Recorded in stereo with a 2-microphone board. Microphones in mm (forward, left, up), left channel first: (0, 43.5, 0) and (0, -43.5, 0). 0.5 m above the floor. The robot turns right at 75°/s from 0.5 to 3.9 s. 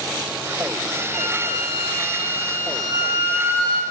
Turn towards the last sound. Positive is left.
turn(degrees=-155)